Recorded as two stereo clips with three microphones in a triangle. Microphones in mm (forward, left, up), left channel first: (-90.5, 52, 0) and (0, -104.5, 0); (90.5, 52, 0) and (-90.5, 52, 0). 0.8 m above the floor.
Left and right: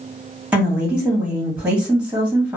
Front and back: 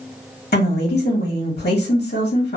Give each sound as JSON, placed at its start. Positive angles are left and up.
{"t": 0.5, "sound": "a woman speaking", "azimuth_deg": 20, "distance_m": 1.3}